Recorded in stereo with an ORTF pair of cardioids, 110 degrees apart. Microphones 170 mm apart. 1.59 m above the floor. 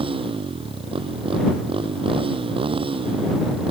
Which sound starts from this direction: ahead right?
A motorcycle, at 0.0 s.